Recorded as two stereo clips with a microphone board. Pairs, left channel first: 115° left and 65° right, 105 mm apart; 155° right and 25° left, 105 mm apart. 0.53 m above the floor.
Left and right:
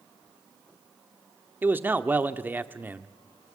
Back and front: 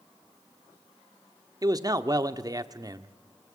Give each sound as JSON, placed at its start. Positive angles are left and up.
{"t": 1.6, "sound": "a man speaking", "azimuth_deg": -5, "distance_m": 1.0}